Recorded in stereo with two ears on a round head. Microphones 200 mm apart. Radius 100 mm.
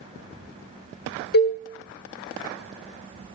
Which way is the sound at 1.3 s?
50° left (ahead or behind).